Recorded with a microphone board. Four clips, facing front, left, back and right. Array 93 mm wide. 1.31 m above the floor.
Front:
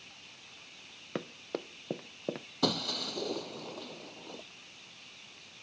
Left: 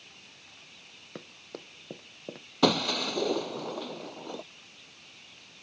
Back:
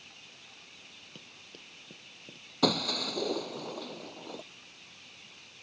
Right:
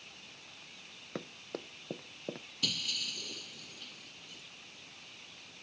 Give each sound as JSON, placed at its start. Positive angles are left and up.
{"t": 1.1, "sound": "running footsteps", "azimuth_deg": -5}
{"t": 2.6, "sound": "breaking glass", "azimuth_deg": 105}